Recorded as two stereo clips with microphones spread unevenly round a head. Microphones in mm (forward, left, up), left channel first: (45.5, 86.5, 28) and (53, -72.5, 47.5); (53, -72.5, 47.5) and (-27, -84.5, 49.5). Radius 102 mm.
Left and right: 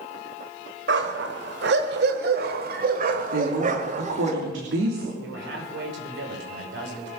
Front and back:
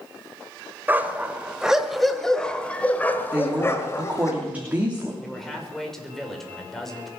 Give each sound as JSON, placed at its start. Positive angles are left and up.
{"t": 0.9, "sound": "a dog barking", "azimuth_deg": -105, "distance_m": 1.8}
{"t": 3.3, "sound": "a woman speaking", "azimuth_deg": -100, "distance_m": 3.0}
{"t": 5.2, "sound": "a man speaking", "azimuth_deg": -80, "distance_m": 5.0}